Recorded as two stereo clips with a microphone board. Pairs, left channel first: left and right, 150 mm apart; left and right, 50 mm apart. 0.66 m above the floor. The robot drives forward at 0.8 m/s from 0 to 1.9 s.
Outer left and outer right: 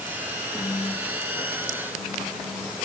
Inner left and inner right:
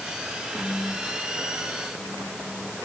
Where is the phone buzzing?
40° left (ahead or behind), 4.5 m; by 2.8 s 35° left (ahead or behind), 5 m.